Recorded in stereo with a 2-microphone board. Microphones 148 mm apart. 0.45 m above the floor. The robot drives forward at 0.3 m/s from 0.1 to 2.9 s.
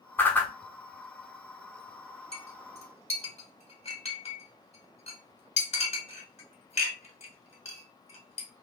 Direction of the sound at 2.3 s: 40° left (ahead or behind).